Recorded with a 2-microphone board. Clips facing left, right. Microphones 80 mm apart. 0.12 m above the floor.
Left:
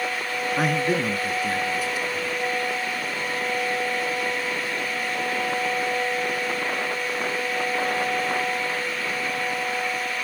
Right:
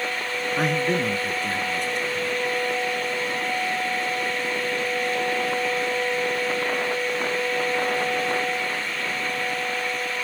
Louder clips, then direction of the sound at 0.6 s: Even; 5° left (ahead or behind).